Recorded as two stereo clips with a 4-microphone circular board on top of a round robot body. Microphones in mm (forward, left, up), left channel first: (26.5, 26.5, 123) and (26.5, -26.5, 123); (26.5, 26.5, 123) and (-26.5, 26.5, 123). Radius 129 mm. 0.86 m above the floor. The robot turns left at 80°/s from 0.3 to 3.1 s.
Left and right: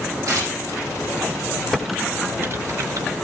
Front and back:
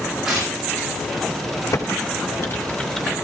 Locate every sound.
0.3 s tearing paper: 100° right, 10 m; by 0.8 s 140° right, 10 m
1.7 s typing on a keyboard: 10° left, 1.8 m; by 3.1 s 100° right, 1.8 m